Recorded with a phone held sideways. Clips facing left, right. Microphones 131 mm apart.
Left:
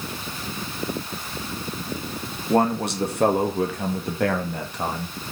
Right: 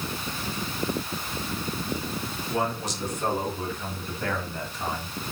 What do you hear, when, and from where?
2.5 s a man speaking: 55° left (ahead or behind), 2 m; by 5.2 s 65° left (ahead or behind), 2.5 m